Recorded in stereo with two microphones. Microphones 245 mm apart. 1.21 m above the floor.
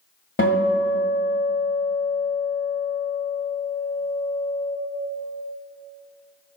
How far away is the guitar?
About 1.8 m.